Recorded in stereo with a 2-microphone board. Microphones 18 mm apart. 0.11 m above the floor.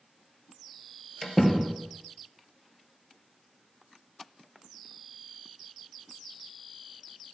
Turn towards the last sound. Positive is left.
turn(degrees=15)  # may be behind; listen again after turning